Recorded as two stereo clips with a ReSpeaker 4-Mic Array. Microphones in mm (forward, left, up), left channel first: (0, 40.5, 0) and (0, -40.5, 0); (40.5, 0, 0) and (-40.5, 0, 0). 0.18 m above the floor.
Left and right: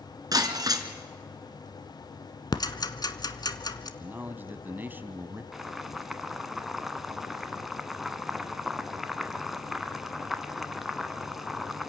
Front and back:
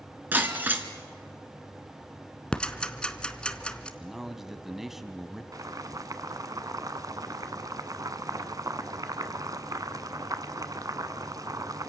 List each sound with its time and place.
0.3 s breaking glass: 115° right, 1.6 m
2.5 s ticking: 75° left, 1.0 m
4.0 s a man speaking: 100° right, 1.2 m
5.5 s boiling: 175° right, 0.9 m